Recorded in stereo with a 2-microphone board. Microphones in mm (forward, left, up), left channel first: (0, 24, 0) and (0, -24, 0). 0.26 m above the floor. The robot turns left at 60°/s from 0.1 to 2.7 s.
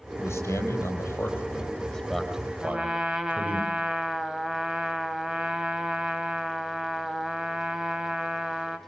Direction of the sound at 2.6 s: 10° right (ahead or behind).